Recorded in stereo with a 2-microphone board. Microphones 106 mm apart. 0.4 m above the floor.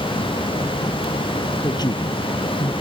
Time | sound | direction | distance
1.6 | a man speaking | 40° left (ahead or behind) | ?